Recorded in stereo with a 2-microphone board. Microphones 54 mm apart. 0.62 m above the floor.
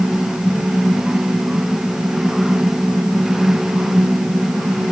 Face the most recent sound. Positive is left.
No sound to turn to.